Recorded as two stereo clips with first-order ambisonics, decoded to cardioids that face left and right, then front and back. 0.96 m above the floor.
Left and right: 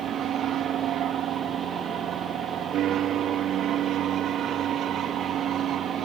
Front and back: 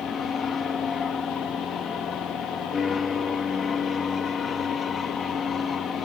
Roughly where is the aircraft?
Ahead right.